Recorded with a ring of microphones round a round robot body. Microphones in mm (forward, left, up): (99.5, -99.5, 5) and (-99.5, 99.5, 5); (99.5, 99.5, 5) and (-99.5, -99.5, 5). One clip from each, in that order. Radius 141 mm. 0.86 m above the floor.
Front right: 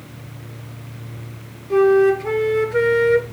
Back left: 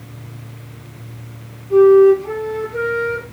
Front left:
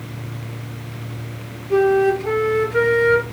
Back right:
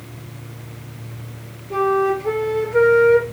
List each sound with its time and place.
1.7 s a flute: 25° right, 4 m